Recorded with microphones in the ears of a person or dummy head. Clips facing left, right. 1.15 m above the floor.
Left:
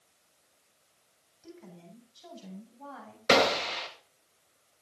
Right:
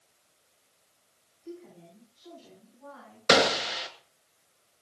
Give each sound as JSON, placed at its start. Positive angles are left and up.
{"t": 1.4, "sound": "a woman speaking", "side_deg": 70, "distance_m": 8.0}
{"t": 3.3, "sound": "a gunshot", "side_deg": -10, "distance_m": 2.0}